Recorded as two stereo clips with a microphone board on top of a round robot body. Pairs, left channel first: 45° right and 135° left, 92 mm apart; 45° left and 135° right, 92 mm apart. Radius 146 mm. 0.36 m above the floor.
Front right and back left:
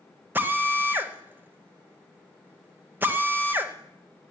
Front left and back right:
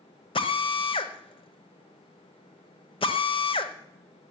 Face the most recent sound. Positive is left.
turn(degrees=65)